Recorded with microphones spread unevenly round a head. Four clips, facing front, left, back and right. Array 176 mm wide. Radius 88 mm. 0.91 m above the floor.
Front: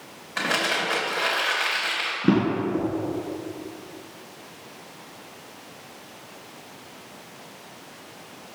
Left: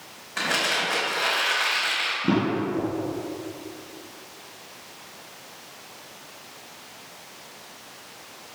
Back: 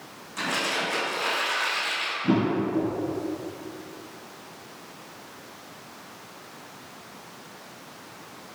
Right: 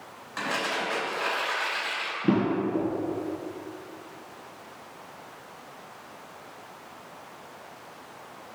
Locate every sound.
0.4 s crumpling: 25° left, 4 m
2.2 s a drawer: 10° right, 3 m